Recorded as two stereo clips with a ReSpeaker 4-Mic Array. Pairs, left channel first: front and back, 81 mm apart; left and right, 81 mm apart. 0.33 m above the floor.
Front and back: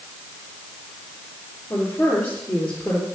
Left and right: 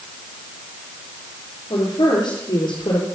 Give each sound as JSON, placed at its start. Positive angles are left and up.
{"t": 1.7, "sound": "a woman speaking", "azimuth_deg": 70, "distance_m": 6.0}